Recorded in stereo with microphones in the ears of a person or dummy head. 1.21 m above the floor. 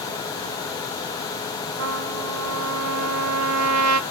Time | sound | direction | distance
1.8 | a trumpet | 80° right | 0.9 m